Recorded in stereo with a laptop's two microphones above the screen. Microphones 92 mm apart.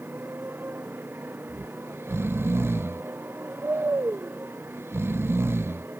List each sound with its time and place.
0.0 s a motorcycle: 20° right (ahead or behind)
1.5 s snoring: 25° right (ahead or behind)